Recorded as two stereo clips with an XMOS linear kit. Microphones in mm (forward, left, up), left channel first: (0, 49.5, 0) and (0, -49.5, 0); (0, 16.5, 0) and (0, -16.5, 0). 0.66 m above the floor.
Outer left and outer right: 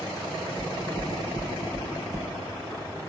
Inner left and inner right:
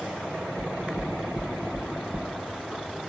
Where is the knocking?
50° right (ahead or behind), 1.4 m.